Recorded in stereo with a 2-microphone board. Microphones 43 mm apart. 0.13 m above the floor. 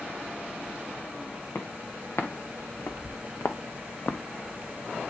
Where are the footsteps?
65° left (ahead or behind), 1.8 m; by 4.2 s 45° left (ahead or behind), 0.8 m.